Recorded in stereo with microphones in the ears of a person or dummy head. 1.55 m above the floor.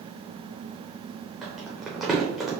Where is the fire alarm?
No fire alarm in this recording.